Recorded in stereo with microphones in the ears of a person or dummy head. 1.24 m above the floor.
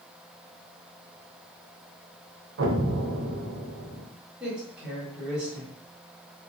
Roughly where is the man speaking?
Centre.